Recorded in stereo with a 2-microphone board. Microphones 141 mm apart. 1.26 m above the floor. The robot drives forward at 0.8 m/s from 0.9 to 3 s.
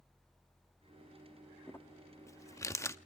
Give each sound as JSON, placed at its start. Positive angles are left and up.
{"t": 1.7, "sound": "crumpling", "side_deg": 15, "distance_m": 0.9}